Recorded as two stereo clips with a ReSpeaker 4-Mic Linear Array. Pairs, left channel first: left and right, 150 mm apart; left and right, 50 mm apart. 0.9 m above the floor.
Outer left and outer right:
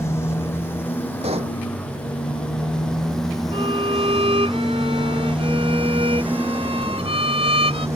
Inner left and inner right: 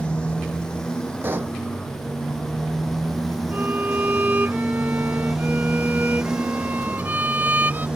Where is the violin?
40° right (ahead or behind).